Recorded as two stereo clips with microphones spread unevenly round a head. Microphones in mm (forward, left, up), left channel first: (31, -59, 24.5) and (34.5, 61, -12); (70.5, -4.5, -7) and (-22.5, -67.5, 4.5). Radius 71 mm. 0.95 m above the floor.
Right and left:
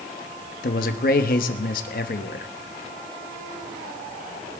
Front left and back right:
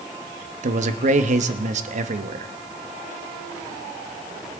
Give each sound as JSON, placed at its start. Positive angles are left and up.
{"t": 0.6, "sound": "a man speaking", "azimuth_deg": -130, "distance_m": 1.1}